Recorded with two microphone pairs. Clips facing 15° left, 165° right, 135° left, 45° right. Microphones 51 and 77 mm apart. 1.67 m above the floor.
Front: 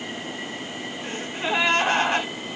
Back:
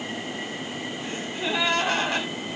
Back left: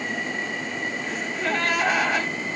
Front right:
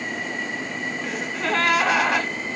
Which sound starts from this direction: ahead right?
A gasp, at 1.0 s.